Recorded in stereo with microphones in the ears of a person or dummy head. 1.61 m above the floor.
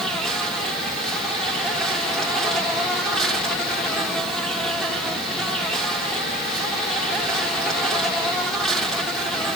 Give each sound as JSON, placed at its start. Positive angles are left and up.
{"t": 0.0, "sound": "an insect", "side_deg": 0, "distance_m": 1.4}